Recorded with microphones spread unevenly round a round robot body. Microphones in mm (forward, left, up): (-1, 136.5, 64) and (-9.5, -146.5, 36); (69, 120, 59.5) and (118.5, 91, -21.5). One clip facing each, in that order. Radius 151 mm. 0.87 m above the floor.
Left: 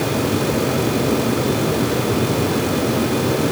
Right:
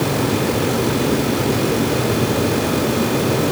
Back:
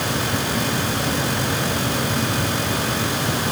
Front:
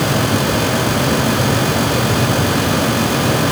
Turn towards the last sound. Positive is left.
No sound to turn to.